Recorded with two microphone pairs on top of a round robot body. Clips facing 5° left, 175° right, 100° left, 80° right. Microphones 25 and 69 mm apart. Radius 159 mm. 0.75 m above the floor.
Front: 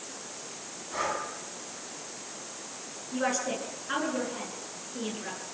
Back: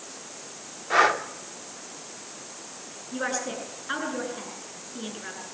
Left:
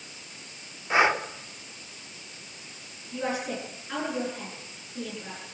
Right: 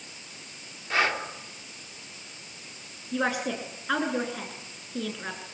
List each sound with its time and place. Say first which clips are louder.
0.9 s breathing: back 11 dB, left 4 dB; 175° left, 2 m
3.1 s a woman speaking: even, right 3 dB; 95° right, 9.5 m